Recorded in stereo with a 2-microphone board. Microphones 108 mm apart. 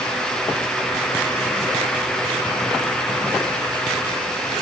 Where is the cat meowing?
I don't hear a cat meowing.